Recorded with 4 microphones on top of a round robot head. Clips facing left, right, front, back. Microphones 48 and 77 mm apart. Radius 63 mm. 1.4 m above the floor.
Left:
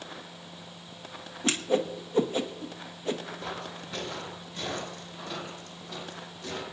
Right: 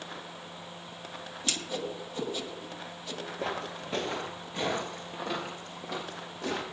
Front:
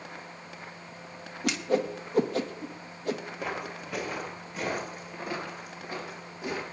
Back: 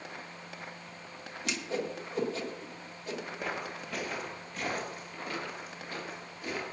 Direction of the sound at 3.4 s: 90° right.